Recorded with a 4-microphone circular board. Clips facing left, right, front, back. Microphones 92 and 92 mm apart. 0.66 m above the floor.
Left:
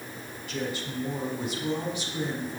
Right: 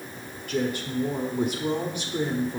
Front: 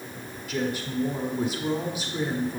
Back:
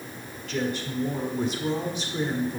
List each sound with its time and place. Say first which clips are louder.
0.5 s a woman speaking: right 6 dB, even; 80° right, 1.4 m